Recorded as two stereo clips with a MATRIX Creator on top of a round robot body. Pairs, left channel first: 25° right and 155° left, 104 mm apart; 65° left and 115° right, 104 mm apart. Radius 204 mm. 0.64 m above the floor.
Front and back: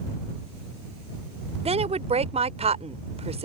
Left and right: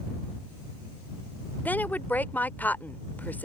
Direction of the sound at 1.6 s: 140° left.